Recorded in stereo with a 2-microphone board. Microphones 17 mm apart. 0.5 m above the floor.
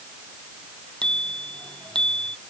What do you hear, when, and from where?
1.0 s a bicycle bell: 60° left (ahead or behind)